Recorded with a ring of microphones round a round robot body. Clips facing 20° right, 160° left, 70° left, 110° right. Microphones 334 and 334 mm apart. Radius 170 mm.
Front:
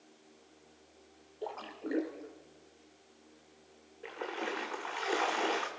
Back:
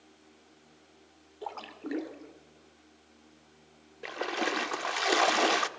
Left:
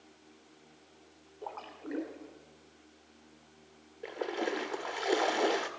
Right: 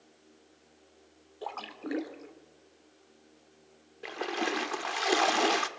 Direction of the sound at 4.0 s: 175° right.